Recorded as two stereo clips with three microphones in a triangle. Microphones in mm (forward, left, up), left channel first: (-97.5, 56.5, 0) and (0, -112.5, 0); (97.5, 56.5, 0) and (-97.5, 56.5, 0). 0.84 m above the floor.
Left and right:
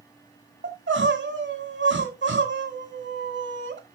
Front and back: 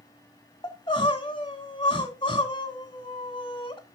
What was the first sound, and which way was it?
Crying, 65° right.